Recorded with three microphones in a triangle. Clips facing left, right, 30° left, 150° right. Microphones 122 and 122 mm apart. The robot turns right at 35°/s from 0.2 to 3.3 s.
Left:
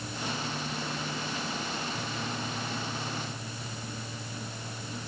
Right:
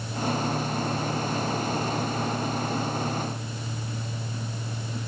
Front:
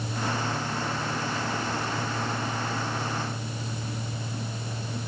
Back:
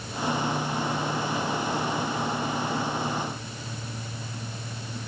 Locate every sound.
Only background noise.